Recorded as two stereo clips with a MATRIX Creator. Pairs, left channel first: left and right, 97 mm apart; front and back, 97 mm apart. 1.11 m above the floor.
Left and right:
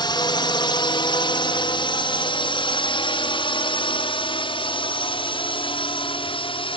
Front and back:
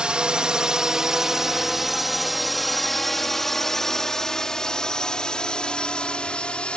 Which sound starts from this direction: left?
A drone, at 0.0 s.